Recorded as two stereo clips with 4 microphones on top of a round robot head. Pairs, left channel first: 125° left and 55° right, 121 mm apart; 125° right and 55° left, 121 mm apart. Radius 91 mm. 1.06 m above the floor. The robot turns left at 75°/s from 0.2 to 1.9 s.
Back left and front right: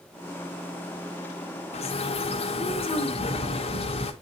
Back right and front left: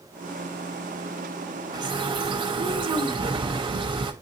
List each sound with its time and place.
1.7 s a bird: 110° left, 1.4 m; by 4.1 s 95° left, 1.4 m